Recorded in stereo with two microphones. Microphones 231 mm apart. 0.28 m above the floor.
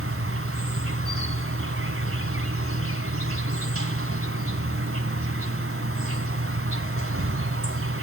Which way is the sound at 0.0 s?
65° right (ahead or behind).